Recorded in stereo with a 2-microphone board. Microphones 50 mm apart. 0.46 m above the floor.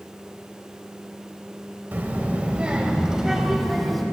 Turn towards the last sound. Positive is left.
turn(degrees=0)  # may be behind; listen again after turning